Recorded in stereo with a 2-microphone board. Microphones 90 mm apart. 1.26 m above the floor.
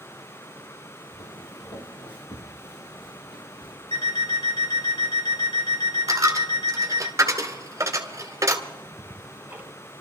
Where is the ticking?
20° right (ahead or behind), 2 m.